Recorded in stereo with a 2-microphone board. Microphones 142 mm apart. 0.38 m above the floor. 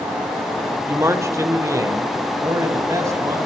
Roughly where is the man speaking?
Centre.